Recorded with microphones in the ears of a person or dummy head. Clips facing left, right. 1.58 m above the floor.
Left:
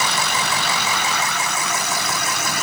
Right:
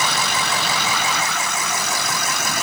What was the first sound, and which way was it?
Only background noise.